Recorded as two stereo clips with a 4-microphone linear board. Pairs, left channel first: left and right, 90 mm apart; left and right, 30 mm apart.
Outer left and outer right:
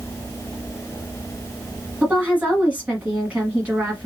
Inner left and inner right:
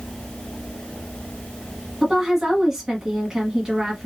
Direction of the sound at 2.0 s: 15° right (ahead or behind).